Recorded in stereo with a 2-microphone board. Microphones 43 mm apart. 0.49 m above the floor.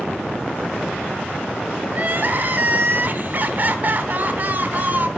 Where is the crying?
45° right (ahead or behind), 0.9 m.